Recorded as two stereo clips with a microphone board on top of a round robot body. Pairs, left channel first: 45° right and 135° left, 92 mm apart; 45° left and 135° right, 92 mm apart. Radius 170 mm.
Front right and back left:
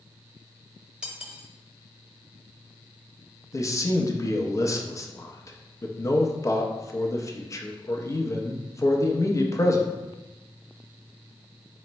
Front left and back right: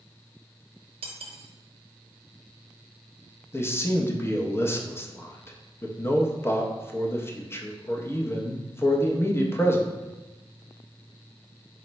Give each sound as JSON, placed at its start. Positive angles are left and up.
{"t": 1.0, "sound": "cutlery clinking", "azimuth_deg": -140, "distance_m": 0.7}
{"t": 3.5, "sound": "a man speaking", "azimuth_deg": -5, "distance_m": 0.7}